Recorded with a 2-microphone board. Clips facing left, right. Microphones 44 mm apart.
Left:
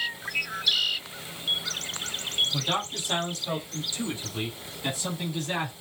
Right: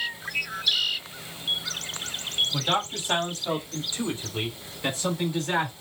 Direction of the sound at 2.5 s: 30° right (ahead or behind).